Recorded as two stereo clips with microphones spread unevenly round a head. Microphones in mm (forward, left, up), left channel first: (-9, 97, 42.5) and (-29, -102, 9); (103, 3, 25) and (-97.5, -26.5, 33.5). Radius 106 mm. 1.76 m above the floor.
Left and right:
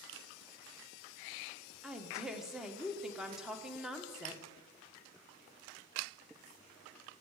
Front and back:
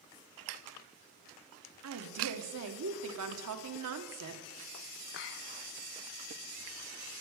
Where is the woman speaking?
175° left, 1.4 m.